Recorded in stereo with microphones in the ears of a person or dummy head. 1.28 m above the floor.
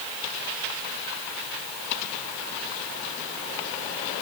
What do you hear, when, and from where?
Only background noise.